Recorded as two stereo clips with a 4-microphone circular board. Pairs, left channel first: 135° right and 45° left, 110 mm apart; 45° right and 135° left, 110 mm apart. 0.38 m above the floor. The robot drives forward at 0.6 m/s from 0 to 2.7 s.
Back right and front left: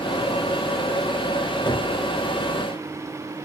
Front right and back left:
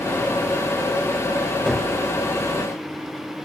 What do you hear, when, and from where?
1.7 s a gunshot: 130° right, 1.6 m; by 1.9 s 135° right, 1.7 m